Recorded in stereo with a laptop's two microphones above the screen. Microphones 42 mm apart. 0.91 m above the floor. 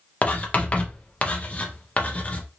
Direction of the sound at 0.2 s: 30° left (ahead or behind).